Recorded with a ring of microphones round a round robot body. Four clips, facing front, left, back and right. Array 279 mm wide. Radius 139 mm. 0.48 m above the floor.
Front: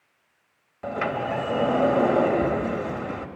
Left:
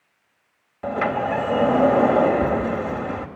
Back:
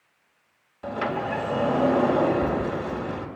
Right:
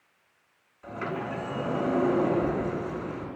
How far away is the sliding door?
About 3 m.